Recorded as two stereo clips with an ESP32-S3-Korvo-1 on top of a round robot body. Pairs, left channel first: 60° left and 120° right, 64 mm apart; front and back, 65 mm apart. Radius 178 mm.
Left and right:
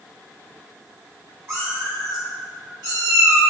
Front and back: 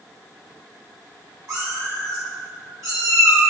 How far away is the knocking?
No knocking in this recording.